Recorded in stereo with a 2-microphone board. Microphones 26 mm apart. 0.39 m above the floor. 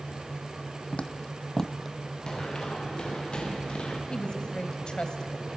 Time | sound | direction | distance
0.9 | footsteps | 45° left (ahead or behind) | 1.4 m
2.3 | running footsteps | 30° left (ahead or behind) | 6 m
4.1 | a woman speaking | 40° left (ahead or behind) | 1.9 m